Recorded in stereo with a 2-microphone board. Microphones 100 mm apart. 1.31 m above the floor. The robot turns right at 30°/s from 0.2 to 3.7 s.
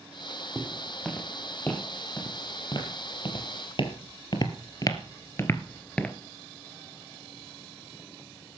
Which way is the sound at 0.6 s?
15° right (ahead or behind).